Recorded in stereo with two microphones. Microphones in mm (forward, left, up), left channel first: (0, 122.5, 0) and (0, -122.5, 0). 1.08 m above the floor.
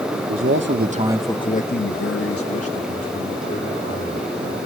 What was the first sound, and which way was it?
A man speaking, 65° right (ahead or behind).